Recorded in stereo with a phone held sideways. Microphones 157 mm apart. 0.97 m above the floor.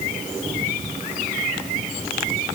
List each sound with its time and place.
Only background noise.